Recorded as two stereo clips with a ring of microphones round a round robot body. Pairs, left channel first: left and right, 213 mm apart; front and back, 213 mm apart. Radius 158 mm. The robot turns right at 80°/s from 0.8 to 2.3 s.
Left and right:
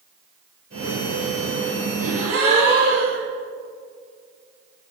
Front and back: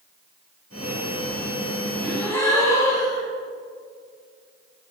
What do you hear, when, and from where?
2.0 s a gasp: 100° right, 3.5 m; by 3.3 s 75° right, 3.5 m